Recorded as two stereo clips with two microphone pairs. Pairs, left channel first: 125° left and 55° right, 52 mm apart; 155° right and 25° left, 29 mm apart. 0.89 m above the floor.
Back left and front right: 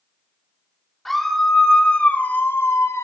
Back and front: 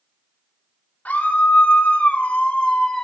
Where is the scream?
145° right, 2.5 m; by 3.0 s 140° left, 1.8 m.